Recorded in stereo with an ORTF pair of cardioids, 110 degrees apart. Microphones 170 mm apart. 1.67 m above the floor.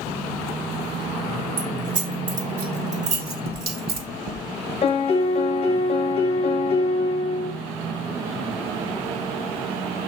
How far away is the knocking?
About 1.7 m.